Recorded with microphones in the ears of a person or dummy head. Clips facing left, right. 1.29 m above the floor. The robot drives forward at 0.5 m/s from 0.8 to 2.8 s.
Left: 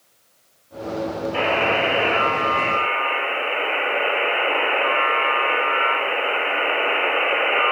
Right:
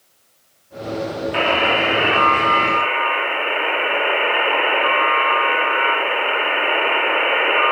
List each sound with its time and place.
1.3 s a buzzer: 70° right (ahead or behind), 1.9 m; by 7.7 s 80° right, 1.8 m